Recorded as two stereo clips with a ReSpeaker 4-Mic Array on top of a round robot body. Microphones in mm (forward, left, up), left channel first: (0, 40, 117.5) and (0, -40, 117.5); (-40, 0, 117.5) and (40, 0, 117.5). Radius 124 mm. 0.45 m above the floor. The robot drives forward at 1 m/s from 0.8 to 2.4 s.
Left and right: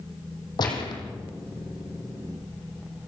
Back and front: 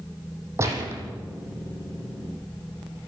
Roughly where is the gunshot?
Ahead left.